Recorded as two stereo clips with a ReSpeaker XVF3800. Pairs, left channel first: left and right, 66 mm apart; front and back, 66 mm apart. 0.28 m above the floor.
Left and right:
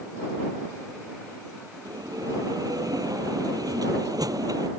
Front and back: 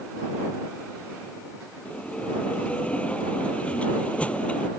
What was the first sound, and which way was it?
A bell, 70° right.